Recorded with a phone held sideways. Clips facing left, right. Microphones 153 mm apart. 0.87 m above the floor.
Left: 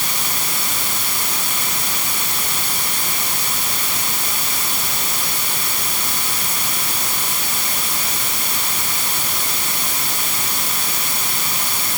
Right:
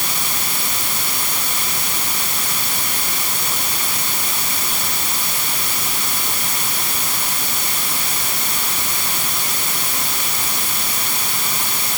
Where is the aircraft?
I don't hear an aircraft.